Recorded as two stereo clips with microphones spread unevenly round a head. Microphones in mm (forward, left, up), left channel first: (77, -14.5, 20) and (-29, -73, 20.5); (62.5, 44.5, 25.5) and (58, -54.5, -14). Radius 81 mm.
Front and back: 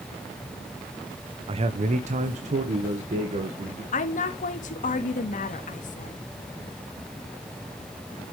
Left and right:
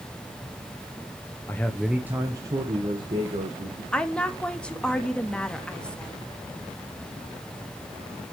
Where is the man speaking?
175° left, 0.7 m; by 3.8 s 120° right, 2.0 m.